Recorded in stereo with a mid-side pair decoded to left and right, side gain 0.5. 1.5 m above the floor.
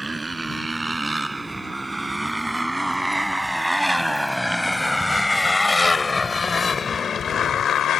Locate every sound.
0.0 s a motorcycle: 20° right; by 8.0 s 60° left